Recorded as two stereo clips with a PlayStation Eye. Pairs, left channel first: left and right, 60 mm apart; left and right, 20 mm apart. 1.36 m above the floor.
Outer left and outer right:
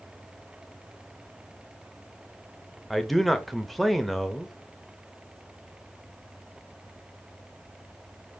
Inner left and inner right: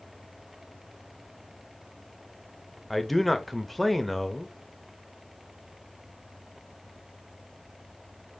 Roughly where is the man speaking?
Centre.